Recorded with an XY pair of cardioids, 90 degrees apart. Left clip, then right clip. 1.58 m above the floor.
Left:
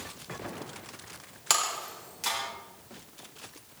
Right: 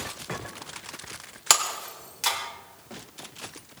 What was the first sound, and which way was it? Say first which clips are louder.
Breaking glass: right 4 dB; 50° right.